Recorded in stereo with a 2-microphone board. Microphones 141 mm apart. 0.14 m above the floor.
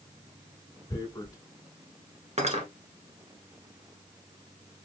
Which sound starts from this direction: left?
Tearing paper, at 0.9 s.